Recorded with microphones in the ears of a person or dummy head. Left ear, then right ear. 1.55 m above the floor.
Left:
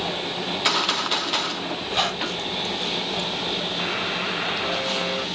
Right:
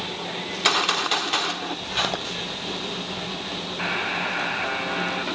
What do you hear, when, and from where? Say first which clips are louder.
0.5 s a gunshot: right 1 dB; 15° right (ahead or behind), 1.0 m
1.9 s a squeak: left 2 dB; 5° left (ahead or behind), 5.5 m
3.8 s a buzzer: even; 20° right (ahead or behind), 2.5 m